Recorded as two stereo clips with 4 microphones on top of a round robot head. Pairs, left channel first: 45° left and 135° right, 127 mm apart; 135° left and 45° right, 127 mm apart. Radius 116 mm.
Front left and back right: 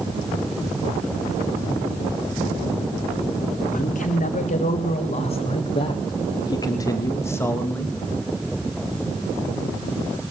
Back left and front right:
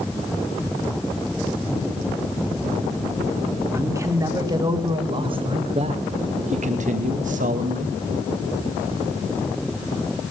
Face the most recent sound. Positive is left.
turn(degrees=-30)